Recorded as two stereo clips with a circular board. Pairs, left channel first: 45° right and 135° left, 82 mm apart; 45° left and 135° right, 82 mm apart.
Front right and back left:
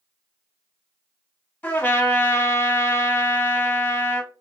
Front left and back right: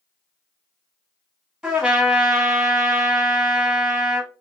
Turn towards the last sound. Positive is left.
turn(degrees=-70)